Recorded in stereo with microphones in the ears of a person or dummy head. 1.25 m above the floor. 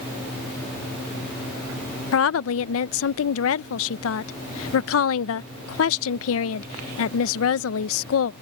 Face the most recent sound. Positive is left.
turn(degrees=85)